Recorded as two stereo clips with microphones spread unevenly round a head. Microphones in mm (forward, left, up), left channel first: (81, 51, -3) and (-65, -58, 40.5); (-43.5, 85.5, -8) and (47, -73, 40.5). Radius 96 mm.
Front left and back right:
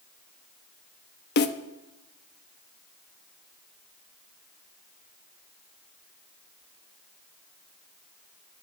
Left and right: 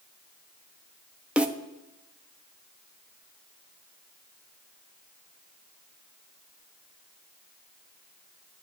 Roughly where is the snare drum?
Ahead left.